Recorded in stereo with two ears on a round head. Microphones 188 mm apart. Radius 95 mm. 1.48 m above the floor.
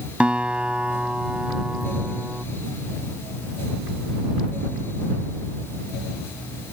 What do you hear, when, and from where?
0.2 s a guitar: 5° right (ahead or behind)